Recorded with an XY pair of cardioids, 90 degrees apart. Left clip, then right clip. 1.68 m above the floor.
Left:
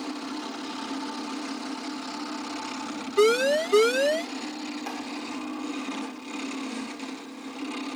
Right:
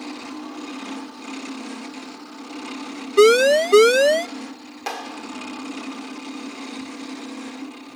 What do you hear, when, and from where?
3.2 s a siren: 55° right
4.9 s a clap: 60° right